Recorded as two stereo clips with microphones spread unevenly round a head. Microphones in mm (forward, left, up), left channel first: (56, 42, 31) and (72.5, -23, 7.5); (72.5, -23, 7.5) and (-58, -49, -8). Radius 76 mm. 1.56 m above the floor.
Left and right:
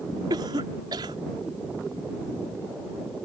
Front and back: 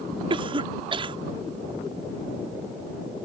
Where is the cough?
120° right.